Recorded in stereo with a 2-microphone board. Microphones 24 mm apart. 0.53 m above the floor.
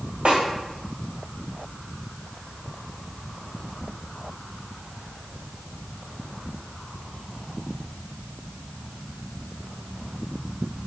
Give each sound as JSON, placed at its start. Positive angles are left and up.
{"t": 0.2, "sound": "a snare drum", "side_deg": -55, "distance_m": 2.0}